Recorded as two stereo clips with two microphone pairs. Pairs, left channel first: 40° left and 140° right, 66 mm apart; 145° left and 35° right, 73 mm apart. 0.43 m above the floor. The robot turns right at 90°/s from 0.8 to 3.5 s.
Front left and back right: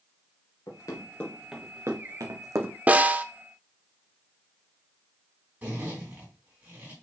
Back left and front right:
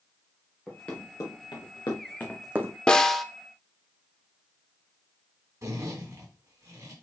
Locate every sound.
0.7 s running footsteps: 65° left, 4 m; by 2.8 s 65° right, 1.0 m
2.9 s a snare drum: 155° right, 0.6 m; by 3.2 s 120° right, 0.6 m
5.6 s a zipper: 75° right, 3.5 m